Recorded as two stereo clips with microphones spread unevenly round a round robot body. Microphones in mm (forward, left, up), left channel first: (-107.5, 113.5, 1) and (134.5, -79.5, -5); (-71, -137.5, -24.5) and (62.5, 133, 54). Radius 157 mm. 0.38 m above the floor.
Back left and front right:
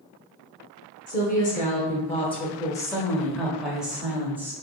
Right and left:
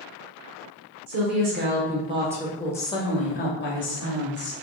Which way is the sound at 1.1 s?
90° left.